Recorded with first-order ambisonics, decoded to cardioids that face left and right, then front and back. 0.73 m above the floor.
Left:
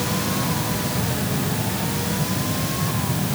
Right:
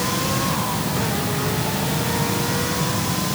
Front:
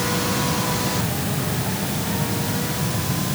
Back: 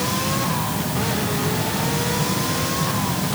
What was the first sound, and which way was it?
Only background noise.